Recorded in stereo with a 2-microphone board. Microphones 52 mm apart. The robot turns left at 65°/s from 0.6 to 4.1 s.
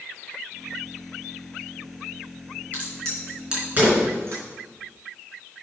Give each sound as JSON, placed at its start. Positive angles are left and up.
{"t": 2.7, "sound": "a crack", "side_deg": 35, "distance_m": 4.0}